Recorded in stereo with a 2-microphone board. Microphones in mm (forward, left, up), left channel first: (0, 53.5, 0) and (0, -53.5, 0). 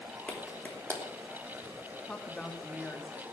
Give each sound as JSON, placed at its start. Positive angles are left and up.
{"t": 0.3, "sound": "a clap", "side_deg": 10, "distance_m": 3.0}
{"t": 2.1, "sound": "a woman speaking", "side_deg": 5, "distance_m": 2.0}